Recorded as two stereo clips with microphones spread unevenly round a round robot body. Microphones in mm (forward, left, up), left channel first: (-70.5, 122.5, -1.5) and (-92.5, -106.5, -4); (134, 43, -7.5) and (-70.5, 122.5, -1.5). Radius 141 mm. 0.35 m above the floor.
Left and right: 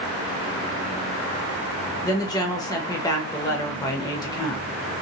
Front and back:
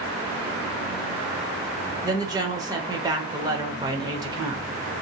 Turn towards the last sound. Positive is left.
turn(degrees=120)